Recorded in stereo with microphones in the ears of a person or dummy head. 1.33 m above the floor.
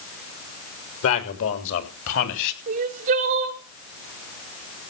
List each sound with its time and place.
1.0 s a man speaking: 85° left, 3 m; by 2.6 s 70° left (ahead or behind), 3 m
2.7 s crying: 50° right (ahead or behind), 1.4 m